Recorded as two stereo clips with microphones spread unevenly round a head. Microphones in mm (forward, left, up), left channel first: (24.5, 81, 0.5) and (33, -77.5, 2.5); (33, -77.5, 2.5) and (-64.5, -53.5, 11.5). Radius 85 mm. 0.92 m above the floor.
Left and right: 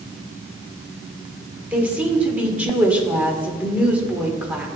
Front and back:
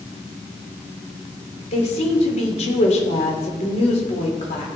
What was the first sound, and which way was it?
A woman speaking, 5° right.